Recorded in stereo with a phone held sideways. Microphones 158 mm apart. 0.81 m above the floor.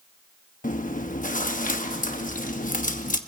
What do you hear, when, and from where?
0.6 s chewing: 55° left (ahead or behind), 1.0 m